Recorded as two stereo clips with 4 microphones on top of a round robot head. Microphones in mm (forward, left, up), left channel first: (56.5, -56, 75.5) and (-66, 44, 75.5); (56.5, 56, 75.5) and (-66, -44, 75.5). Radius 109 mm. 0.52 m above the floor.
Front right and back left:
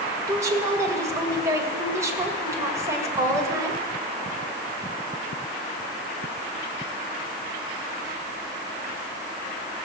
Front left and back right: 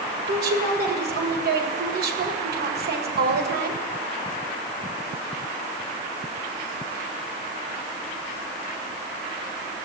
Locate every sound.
0.3 s a woman speaking: 145° right, 2 m